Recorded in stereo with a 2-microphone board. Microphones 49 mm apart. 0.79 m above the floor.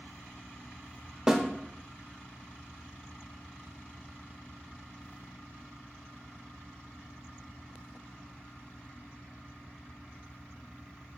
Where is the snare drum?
10° right (ahead or behind), 0.5 m.